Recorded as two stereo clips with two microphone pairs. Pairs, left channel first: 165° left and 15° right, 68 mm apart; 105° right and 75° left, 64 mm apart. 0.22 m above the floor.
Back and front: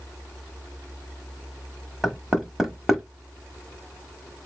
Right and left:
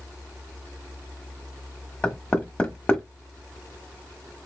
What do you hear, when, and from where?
2.0 s knocking: 95° right, 1.1 m